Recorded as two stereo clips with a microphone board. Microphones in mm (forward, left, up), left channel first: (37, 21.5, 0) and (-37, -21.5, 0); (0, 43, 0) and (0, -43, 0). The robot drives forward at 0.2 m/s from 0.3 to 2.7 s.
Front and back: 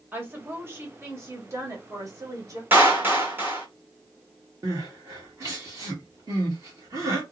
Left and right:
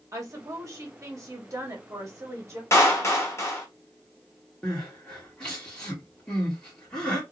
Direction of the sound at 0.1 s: 100° right.